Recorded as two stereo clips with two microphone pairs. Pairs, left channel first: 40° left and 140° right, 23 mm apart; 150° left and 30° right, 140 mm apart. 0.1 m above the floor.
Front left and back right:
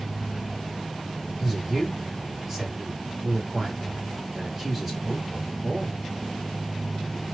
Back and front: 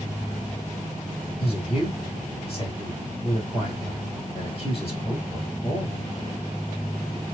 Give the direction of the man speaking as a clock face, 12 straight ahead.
7 o'clock.